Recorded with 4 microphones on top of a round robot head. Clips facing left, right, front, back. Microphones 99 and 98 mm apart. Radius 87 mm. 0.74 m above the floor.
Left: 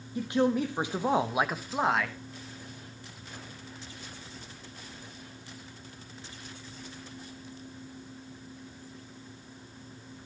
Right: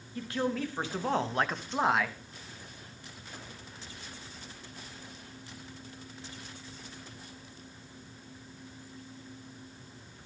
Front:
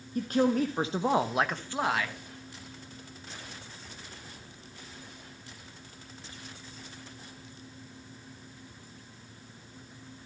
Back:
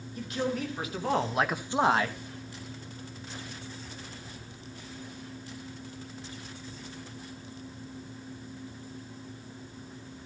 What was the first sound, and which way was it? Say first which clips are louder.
A man speaking: left 6 dB, front 6 dB; 25° left.